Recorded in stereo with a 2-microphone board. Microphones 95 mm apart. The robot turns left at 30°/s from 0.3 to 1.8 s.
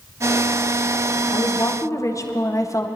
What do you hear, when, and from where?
1.3 s a woman speaking: 40° left (ahead or behind), 0.7 m; by 2.9 s 35° left (ahead or behind), 0.7 m